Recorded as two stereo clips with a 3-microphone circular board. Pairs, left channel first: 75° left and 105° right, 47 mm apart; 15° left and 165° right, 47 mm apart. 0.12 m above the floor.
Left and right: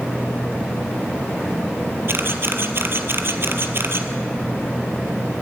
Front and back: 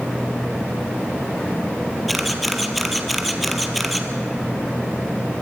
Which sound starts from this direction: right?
A camera shutter, at 2.1 s.